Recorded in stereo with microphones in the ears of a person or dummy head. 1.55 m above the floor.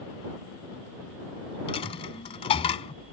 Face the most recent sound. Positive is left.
turn(degrees=30)  # may be behind; listen again after turning